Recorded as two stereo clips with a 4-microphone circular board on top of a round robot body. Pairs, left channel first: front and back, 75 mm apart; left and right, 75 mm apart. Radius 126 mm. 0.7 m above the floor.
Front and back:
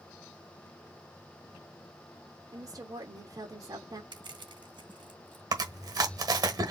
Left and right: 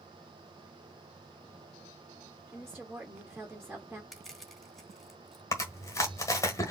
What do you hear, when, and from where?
2.5 s a woman speaking: 170° right, 1.7 m
4.1 s crushing: straight behind, 3 m
5.5 s chewing: 140° left, 1.3 m